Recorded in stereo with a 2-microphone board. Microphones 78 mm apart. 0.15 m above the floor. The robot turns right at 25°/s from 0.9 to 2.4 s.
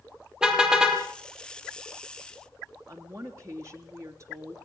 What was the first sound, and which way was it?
A car horn, 10° right (ahead or behind).